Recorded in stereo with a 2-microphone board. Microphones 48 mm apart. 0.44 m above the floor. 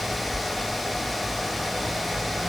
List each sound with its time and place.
Only background noise.